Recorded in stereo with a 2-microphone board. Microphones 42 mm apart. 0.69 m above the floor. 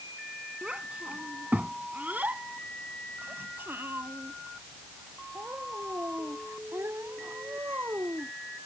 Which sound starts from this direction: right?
A child speaking, at 0.6 s.